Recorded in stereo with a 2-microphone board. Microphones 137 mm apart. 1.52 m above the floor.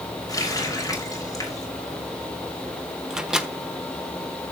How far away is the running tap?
About 3.5 m.